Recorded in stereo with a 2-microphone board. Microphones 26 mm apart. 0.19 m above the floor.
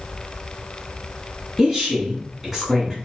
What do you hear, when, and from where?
1.6 s a woman speaking: 10° right (ahead or behind), 1.6 m